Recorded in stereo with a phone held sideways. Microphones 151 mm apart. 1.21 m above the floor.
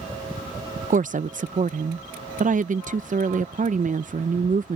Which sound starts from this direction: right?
A woman speaking, at 0.9 s.